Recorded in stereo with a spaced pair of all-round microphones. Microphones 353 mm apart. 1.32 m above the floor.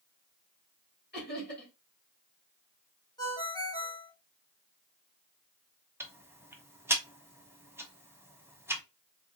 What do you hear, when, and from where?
1.1 s laughter: 30° left (ahead or behind), 2 m
3.2 s a ringtone: 10° left (ahead or behind), 1.0 m
6.0 s ticking: 5° right (ahead or behind), 0.8 m